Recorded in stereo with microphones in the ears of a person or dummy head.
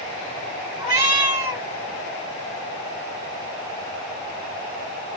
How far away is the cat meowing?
About 2.5 m.